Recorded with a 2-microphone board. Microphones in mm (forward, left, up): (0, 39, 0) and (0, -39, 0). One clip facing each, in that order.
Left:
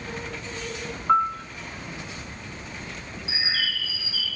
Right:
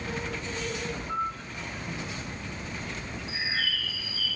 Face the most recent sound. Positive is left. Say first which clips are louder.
# left 2 dB
turn(degrees=85)